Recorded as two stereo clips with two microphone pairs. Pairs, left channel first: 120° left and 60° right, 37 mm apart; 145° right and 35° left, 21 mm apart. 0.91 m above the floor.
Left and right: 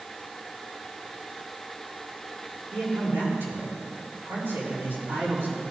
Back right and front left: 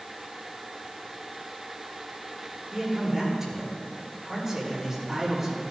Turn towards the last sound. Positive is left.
turn(degrees=-45)